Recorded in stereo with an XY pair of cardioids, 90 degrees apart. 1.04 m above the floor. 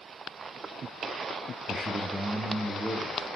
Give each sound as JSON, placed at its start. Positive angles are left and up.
{"t": 1.7, "sound": "a man speaking", "azimuth_deg": -25, "distance_m": 0.6}